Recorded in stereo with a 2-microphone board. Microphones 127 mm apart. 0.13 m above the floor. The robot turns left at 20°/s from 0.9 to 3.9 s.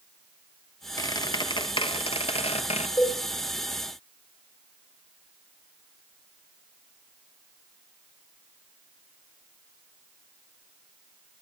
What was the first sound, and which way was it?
A squeak, 145° left.